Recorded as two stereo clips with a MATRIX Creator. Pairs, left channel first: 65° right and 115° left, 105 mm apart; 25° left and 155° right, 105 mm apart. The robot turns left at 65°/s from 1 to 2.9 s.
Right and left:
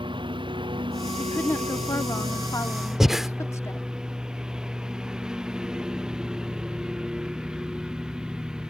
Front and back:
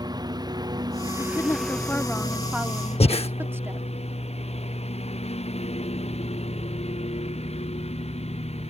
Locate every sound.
0.0 s a lawn mower: 150° left; by 8.7 s 30° left
1.2 s a woman speaking: 5° left; by 3.9 s 105° right
3.0 s breathing: 25° left